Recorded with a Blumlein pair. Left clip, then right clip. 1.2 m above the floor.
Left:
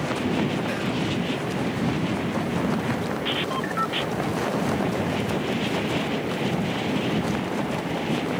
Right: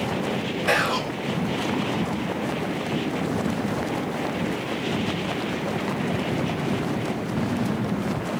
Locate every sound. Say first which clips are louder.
0.7 s whispering: right 5 dB; 55° right, 0.7 m